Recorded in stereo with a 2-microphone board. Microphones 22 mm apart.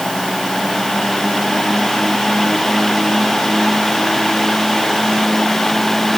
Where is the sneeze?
No sneeze in this recording.